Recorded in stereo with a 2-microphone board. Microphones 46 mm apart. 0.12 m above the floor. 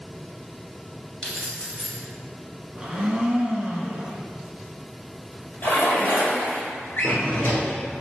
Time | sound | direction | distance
1.2 | keys jangling | 15° left (ahead or behind) | 1.5 m
2.8 | a blender | 20° right (ahead or behind) | 0.7 m
5.6 | a splash | 45° left (ahead or behind) | 2.0 m
7.0 | a drawer | 50° left (ahead or behind) | 1.1 m